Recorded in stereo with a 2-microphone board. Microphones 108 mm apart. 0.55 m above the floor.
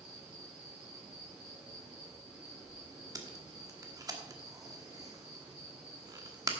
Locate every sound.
0.0 s an insect: 10° right (ahead or behind), 4.5 m
3.1 s tape being pulled: 35° right (ahead or behind), 1.3 m